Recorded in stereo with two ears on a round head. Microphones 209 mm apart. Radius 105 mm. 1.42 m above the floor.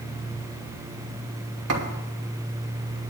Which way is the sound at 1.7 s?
75° right (ahead or behind).